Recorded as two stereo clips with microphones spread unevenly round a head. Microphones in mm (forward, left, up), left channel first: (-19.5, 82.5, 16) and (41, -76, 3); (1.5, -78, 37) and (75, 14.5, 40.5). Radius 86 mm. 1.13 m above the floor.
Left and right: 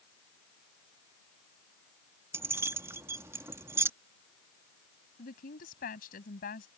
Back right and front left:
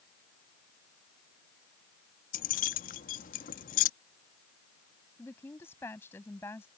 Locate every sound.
2.3 s keys jangling: 145° right
5.2 s a woman speaking: 155° left